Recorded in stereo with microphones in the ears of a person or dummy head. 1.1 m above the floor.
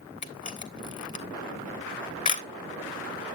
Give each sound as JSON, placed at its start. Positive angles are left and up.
{"t": 0.2, "sound": "a camera shutter", "side_deg": 30, "distance_m": 1.1}